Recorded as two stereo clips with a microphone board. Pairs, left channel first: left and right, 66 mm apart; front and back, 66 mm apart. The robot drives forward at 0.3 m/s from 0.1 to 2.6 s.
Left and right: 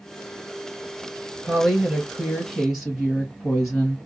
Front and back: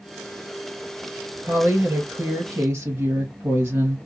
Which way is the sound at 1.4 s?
170° right.